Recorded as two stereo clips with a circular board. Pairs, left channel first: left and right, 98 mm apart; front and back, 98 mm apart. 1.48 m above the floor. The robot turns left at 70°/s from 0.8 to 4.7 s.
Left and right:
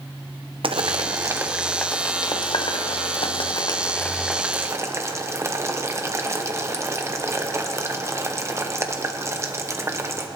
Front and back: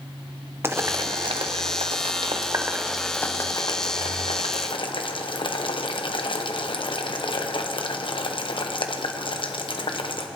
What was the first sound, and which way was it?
Boiling, 115° right.